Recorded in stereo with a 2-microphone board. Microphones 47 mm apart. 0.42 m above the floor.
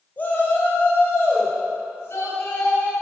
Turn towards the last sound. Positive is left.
turn(degrees=65)  # may be behind; listen again after turning